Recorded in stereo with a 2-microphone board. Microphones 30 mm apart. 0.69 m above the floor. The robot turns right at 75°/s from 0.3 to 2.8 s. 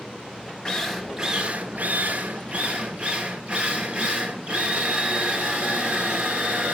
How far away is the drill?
About 2.0 m.